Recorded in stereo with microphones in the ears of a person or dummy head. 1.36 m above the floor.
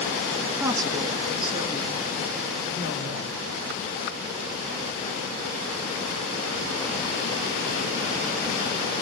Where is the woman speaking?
10° right (ahead or behind), 1.6 m; by 3.3 s 30° right (ahead or behind), 5.5 m.